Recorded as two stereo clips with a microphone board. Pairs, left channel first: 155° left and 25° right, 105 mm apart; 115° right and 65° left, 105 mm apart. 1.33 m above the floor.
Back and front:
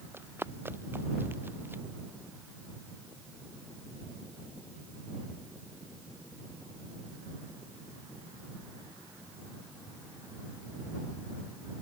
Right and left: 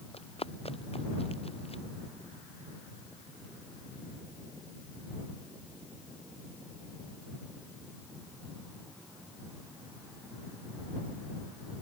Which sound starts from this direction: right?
Running footsteps, at 0.1 s.